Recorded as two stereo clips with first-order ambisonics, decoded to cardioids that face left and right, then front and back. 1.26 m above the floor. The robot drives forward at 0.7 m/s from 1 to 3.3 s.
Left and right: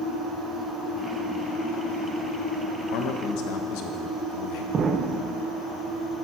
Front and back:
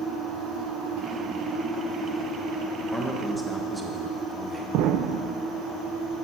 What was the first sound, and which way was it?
A man speaking, 85° left.